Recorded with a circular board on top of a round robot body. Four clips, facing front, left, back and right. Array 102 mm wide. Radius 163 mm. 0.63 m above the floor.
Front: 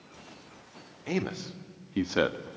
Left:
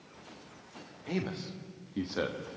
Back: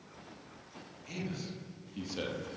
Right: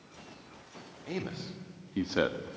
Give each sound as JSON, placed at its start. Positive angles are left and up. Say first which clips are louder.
{"t": 1.1, "sound": "a man speaking", "louder": "left 2 dB, front 9 dB", "azimuth_deg": 5, "distance_m": 2.5}